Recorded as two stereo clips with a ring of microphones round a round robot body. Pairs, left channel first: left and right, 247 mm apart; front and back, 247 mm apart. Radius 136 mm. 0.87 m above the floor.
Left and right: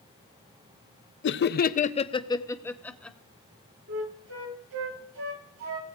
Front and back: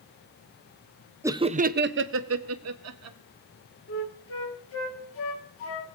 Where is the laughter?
105° left, 0.5 m; by 3.2 s 175° left, 1.2 m.